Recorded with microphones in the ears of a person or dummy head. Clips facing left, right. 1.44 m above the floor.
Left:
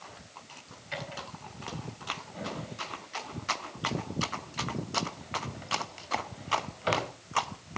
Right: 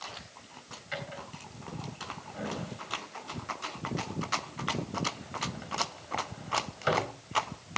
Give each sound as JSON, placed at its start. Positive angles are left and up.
{"t": 0.9, "sound": "a drawer", "side_deg": -20, "distance_m": 3.5}